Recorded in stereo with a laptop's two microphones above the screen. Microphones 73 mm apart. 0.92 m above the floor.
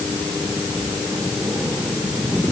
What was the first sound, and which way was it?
Only background noise.